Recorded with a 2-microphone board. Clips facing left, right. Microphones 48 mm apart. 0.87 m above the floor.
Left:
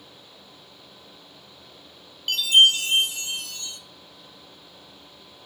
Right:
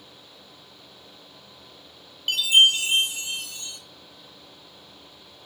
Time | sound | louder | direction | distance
2.3 | a chime | left 1 dB | 15° right (ahead or behind) | 0.7 m